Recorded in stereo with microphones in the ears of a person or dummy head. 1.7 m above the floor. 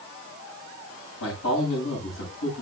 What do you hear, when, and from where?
1.2 s a man speaking: 75° left (ahead or behind), 9 m